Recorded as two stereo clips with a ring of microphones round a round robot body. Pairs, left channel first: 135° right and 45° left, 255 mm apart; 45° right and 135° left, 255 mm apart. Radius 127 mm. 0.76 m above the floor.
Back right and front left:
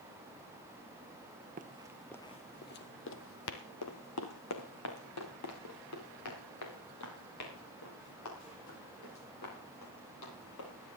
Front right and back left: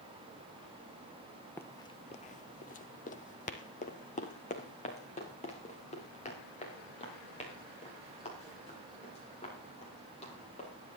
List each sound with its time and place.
1.6 s running footsteps: 30° left, 0.8 m; by 10.7 s 110° right, 8.5 m